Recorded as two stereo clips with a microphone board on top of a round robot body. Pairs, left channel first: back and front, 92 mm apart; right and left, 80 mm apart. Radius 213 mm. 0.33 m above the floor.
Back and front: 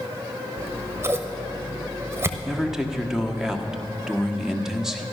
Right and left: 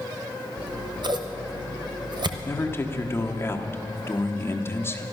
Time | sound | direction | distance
0.6 | scissors | 65° left | 1.0 m
2.5 | a man speaking | 80° right | 1.4 m